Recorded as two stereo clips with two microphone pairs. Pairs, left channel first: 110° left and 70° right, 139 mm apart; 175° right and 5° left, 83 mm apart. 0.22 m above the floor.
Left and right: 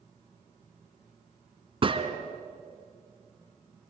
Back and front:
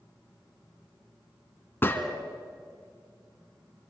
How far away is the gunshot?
About 1.6 m.